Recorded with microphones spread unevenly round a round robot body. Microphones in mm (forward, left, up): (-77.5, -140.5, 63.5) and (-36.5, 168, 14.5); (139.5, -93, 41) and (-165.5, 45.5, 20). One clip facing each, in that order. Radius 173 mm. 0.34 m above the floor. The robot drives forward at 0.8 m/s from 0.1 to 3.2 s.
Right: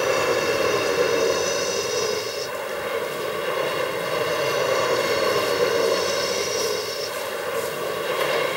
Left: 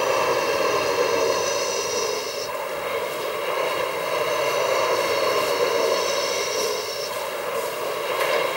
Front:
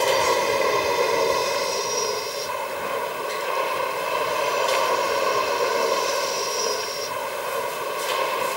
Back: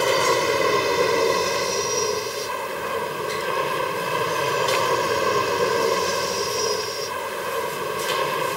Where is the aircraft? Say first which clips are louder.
Right 1 dB, back 1 dB; 160° right; by 8.6 s 165° right.